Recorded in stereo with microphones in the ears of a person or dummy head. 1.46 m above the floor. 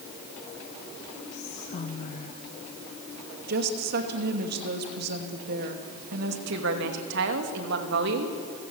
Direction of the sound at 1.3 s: 40° left (ahead or behind).